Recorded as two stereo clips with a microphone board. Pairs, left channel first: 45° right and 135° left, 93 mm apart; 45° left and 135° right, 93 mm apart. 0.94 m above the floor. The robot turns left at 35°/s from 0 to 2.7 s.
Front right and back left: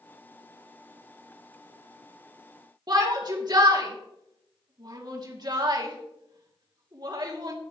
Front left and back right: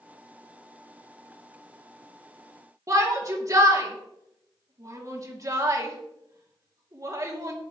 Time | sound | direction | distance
2.9 | a shout | 175° left | 2.5 m